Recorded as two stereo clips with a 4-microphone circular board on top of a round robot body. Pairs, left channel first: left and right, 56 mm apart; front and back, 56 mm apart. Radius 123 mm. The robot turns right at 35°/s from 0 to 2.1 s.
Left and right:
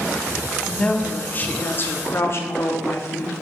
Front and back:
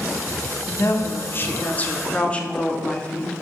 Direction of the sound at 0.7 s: 15° left.